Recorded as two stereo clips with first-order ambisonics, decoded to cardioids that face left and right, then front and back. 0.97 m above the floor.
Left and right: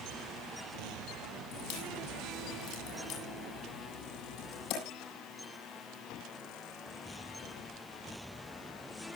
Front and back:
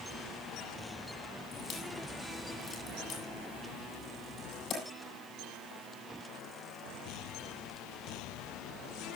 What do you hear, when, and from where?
1.5 s a crack: 60° left, 8.5 m